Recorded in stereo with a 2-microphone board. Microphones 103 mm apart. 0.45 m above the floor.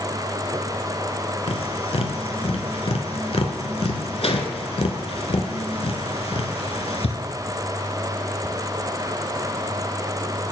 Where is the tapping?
75° left (ahead or behind), 0.9 m.